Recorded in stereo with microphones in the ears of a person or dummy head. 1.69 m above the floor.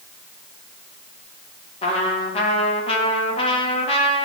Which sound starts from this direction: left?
A trumpet, at 1.8 s.